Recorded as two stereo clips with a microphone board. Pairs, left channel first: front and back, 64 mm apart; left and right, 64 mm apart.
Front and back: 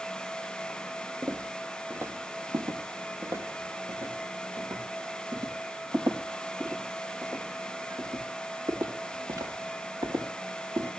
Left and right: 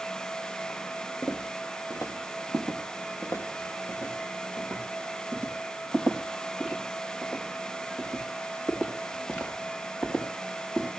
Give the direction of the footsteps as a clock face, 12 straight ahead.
8 o'clock.